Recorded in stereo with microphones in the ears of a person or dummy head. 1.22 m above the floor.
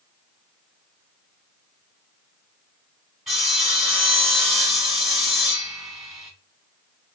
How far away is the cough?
I don't hear a cough.